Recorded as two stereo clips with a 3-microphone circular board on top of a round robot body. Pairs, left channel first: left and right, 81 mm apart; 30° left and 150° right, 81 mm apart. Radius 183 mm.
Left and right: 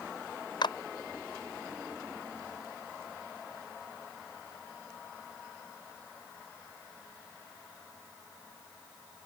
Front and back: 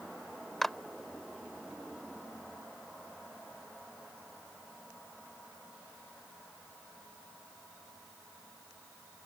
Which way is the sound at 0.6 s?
120° left.